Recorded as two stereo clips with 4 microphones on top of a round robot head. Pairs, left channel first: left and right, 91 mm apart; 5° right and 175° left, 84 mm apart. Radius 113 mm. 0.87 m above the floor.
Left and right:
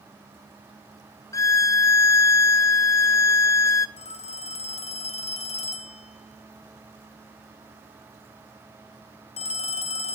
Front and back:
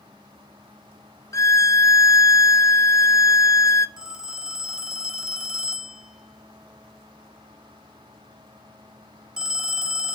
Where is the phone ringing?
90° left, 1.5 m.